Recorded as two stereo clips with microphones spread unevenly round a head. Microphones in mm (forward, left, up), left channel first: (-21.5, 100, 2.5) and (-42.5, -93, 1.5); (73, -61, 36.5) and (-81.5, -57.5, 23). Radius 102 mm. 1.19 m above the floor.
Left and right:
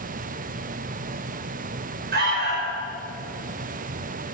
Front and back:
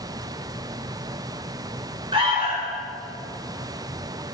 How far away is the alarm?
About 6 m.